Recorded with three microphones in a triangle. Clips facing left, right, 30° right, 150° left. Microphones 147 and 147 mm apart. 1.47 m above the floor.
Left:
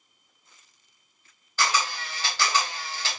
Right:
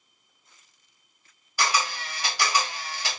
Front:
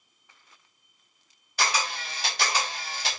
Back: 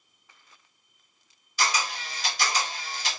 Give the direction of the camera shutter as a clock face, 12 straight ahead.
12 o'clock.